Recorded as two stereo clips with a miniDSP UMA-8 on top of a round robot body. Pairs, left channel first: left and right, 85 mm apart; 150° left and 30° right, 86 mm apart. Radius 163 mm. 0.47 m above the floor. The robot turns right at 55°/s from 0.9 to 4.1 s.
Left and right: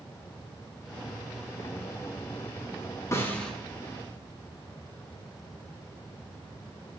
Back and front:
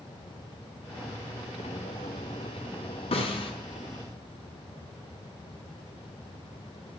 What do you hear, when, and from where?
3.1 s a snare drum: 150° left, 4.5 m; by 3.5 s 170° left, 4.5 m